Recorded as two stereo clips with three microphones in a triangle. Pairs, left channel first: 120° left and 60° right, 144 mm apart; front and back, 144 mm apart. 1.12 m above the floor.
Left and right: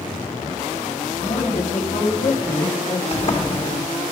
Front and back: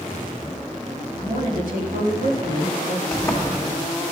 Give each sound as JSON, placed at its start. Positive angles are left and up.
{"t": 1.2, "sound": "a woman speaking", "azimuth_deg": 160, "distance_m": 2.5}
{"t": 3.1, "sound": "a sliding door", "azimuth_deg": 80, "distance_m": 1.7}